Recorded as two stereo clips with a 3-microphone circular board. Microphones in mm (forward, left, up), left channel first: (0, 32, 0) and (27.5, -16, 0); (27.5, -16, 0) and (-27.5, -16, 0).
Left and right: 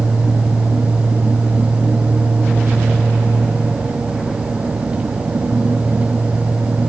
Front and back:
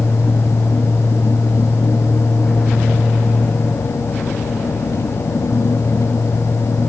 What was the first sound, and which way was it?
Only background noise.